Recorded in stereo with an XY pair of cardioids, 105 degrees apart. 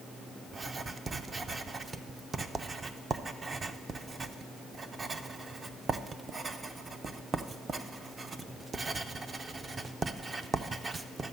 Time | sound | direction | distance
0.5 | writing | 30° right | 0.6 m